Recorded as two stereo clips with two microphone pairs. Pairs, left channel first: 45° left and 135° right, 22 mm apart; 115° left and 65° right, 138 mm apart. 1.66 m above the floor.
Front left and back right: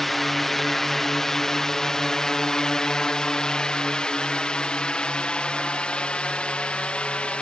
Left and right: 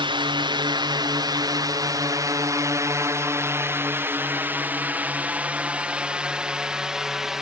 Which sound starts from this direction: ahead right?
A drone, at 0.0 s.